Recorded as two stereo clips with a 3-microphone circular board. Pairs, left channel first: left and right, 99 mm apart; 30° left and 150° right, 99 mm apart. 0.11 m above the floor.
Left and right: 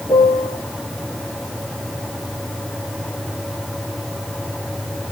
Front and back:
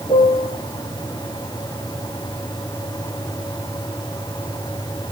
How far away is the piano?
About 3 m.